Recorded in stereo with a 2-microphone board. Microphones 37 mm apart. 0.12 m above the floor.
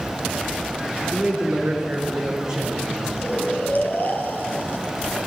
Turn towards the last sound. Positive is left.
turn(degrees=55)  # may be behind; listen again after turning